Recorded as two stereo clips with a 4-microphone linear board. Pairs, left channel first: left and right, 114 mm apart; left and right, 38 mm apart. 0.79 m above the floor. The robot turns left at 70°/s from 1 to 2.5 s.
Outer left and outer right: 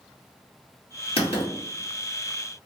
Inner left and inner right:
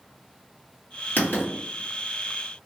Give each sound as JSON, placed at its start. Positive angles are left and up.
{"t": 1.2, "sound": "writing", "side_deg": 55, "distance_m": 1.9}